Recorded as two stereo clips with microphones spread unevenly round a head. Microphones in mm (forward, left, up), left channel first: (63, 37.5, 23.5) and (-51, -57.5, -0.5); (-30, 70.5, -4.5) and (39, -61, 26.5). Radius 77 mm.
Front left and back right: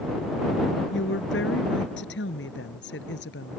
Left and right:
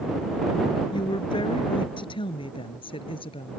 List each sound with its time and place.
0.9 s a woman speaking: 55° left; by 3.6 s 60° left